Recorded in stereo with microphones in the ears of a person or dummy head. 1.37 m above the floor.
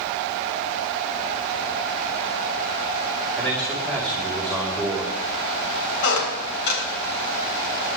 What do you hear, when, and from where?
3.4 s a man speaking: 5° left (ahead or behind), 4.5 m
6.0 s a squeak: 65° left (ahead or behind), 3.5 m